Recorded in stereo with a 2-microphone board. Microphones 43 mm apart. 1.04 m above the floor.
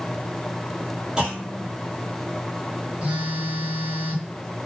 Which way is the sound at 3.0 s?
30° right (ahead or behind).